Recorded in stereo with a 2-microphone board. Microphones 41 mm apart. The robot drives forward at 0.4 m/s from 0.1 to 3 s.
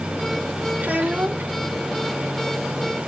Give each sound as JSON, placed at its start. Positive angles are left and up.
{"t": 0.8, "sound": "a child speaking", "side_deg": -45, "distance_m": 1.7}